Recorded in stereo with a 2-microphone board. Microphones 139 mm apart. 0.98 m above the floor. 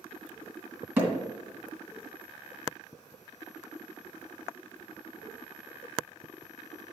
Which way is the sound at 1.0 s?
15° right (ahead or behind).